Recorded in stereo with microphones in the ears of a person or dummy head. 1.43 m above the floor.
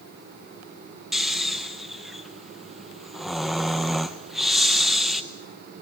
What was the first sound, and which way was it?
Snoring, 5° left (ahead or behind).